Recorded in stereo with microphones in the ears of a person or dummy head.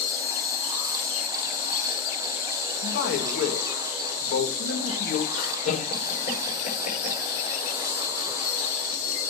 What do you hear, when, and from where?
0.0 s an insect: 65° left (ahead or behind), 3 m
2.8 s a man speaking: 70° left (ahead or behind), 1.6 m
5.3 s laughter: 50° left (ahead or behind), 5.5 m